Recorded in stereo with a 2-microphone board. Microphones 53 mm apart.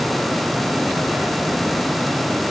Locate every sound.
Only background noise.